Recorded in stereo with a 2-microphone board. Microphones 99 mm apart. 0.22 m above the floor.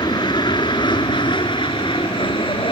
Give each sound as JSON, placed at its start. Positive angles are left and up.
{"t": 0.0, "sound": "an aircraft", "side_deg": 50}